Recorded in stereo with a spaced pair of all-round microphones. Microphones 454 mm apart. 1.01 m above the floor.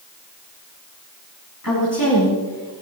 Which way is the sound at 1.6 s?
45° left (ahead or behind).